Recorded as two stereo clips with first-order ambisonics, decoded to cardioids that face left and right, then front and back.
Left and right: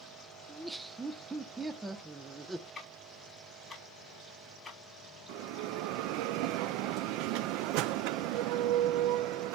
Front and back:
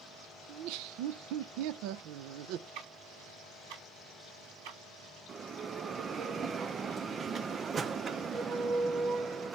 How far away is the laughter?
About 0.7 m.